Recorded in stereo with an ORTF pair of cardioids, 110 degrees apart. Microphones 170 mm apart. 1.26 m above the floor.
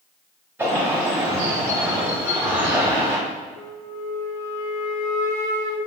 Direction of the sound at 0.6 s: 15° right.